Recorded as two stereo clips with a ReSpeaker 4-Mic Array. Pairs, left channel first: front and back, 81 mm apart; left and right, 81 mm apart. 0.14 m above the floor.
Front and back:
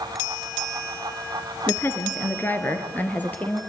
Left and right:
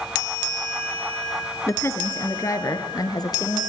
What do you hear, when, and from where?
1.7 s a woman speaking: 45° left, 2 m; by 3.6 s 70° left, 3.5 m